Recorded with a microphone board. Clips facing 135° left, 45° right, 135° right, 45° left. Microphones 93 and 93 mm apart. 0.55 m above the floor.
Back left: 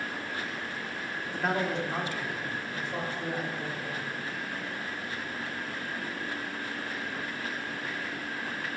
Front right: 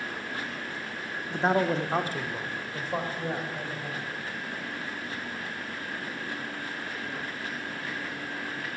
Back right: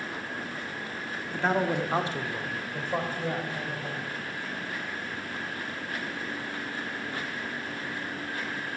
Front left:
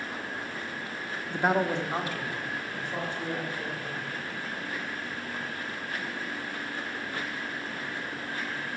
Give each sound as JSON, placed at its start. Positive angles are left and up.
{"t": 1.3, "sound": "a man speaking", "azimuth_deg": 10, "distance_m": 0.7}